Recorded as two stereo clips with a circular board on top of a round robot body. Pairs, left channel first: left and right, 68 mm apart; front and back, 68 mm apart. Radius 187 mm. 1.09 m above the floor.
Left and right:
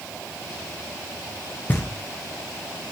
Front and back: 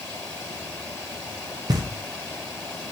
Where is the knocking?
155° left, 0.7 m.